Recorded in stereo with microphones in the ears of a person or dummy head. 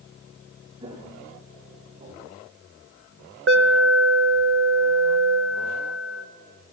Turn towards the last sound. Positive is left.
turn(degrees=-65)  # may be behind; listen again after turning